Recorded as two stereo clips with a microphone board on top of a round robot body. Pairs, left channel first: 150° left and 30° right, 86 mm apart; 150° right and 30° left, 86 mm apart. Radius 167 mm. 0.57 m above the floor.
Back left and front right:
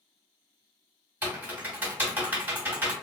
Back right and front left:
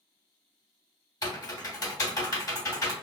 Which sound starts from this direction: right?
Typing on a keyboard, at 1.2 s.